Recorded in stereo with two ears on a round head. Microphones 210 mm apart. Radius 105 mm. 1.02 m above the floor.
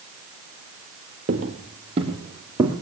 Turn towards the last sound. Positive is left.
turn(degrees=-15)  # may be behind; listen again after turning